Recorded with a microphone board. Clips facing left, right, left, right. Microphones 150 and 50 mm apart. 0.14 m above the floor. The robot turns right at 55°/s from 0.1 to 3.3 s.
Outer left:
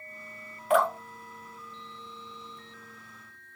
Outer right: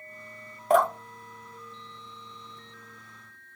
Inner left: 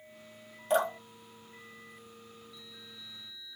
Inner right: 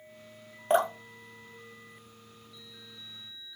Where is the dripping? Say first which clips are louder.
Outer right 2 dB, inner right 3 dB; 40° right (ahead or behind), 1.3 m; by 2.6 s 30° right (ahead or behind), 1.3 m.